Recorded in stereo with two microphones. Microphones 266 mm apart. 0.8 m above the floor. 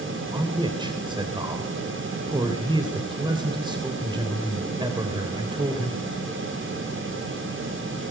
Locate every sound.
0.3 s a man speaking: 15° right (ahead or behind), 3.5 m